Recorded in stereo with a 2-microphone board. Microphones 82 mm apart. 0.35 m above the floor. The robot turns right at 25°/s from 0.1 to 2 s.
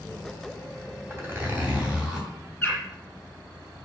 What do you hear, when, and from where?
1.1 s a zipper: 30° right (ahead or behind), 2.5 m; by 2.3 s 10° right (ahead or behind), 2.5 m
2.6 s a bird: 20° left (ahead or behind), 4 m